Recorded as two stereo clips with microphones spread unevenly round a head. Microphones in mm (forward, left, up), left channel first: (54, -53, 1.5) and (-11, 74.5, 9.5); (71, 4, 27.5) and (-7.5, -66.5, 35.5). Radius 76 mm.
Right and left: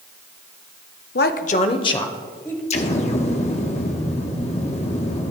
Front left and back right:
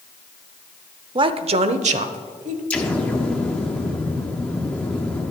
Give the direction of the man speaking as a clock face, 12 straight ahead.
3 o'clock.